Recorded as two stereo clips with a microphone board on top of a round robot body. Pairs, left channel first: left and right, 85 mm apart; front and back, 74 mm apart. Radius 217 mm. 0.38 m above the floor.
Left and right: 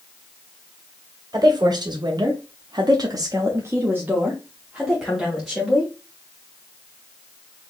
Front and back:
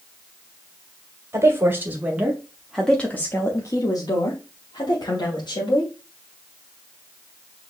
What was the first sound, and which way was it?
A woman speaking, 125° right.